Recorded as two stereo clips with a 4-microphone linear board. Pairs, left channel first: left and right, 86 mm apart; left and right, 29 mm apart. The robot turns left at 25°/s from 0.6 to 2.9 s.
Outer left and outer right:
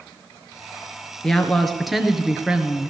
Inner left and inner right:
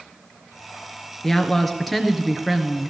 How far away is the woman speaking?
About 1.6 m.